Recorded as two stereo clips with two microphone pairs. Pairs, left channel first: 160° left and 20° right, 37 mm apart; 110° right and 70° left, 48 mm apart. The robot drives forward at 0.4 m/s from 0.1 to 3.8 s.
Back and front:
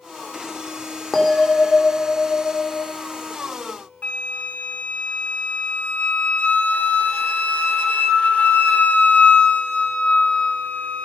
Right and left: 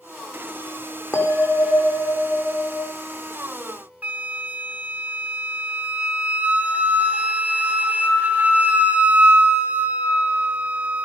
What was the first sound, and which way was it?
A bell, 120° right.